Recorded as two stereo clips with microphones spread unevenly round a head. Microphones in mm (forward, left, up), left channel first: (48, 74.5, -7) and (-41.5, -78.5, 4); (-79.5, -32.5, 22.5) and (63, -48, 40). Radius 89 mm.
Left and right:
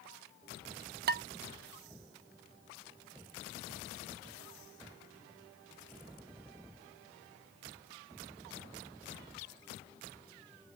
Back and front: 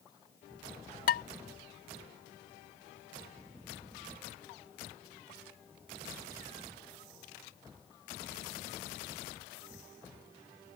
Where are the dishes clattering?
160° right.